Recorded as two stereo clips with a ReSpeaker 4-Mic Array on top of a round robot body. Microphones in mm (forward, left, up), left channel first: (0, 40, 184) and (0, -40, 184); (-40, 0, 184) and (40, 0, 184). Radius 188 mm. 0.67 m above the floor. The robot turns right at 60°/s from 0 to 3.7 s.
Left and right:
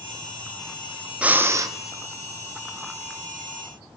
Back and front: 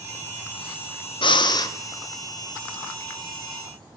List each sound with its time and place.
1.2 s breathing: 165° right, 0.8 m; by 1.7 s 135° right, 0.8 m